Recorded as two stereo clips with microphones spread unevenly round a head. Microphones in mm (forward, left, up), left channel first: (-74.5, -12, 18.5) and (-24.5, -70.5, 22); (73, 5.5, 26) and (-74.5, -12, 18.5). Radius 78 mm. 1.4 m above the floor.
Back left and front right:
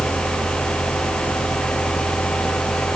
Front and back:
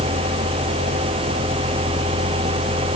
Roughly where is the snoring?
I don't hear snoring.